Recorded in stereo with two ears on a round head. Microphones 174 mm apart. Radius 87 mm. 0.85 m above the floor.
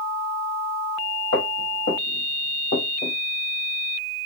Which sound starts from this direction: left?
Footsteps, at 1.3 s.